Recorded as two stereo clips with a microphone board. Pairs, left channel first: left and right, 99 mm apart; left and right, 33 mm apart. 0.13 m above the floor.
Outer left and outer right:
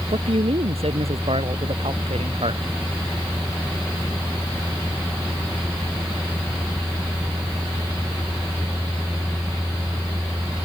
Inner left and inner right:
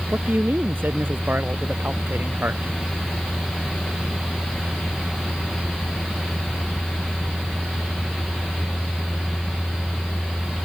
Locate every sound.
0.1 s a man speaking: 80° right